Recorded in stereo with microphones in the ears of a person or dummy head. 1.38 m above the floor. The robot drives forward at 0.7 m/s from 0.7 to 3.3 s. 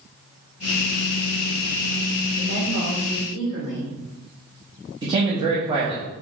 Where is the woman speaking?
45° left (ahead or behind), 2 m; by 3.9 s 35° left (ahead or behind), 2.5 m.